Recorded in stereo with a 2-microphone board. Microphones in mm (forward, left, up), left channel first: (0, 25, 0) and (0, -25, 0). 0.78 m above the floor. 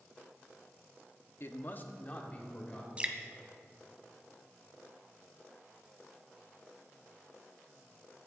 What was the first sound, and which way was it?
A man speaking, 50° left (ahead or behind).